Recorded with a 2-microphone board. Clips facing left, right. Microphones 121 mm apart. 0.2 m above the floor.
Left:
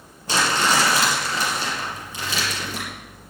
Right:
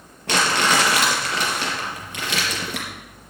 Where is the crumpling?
70° right (ahead or behind), 4.5 m.